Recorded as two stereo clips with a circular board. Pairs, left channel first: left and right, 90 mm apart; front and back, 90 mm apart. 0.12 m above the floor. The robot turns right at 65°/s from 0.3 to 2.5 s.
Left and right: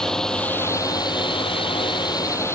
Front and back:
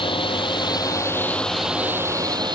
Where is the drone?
5° left; by 2.6 s 150° left.